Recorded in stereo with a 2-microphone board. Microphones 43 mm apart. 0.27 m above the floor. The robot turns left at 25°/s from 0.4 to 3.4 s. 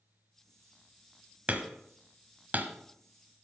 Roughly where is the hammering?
Right.